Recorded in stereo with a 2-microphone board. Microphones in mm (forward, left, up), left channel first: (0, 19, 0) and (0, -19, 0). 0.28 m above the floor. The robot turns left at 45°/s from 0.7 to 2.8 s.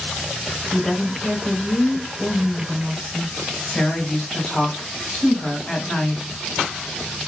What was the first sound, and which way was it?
A woman speaking, straight ahead.